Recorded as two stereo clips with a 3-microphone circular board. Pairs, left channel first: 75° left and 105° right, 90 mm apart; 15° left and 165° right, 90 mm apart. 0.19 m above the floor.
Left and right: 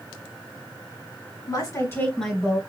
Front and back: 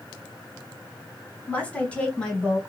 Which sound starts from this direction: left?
A woman speaking, at 1.5 s.